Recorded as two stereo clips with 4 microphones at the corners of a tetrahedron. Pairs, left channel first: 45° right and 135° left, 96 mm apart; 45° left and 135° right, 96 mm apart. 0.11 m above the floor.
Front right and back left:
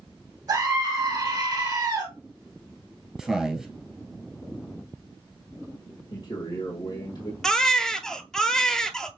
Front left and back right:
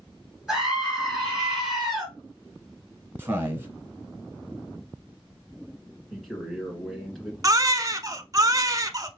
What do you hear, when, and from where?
0.5 s a scream: 140° left, 2 m
3.2 s a man speaking: 150° right, 1.6 m
6.1 s a man speaking: 40° right, 1.8 m
7.4 s a baby crying: 125° right, 0.5 m